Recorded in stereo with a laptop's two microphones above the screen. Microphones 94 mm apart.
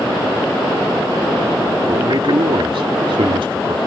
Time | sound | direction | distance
1.9 | a man speaking | 65° right (ahead or behind) | ?